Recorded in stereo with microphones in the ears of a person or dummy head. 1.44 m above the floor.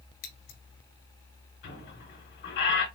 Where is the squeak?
60° left (ahead or behind), 3.5 m.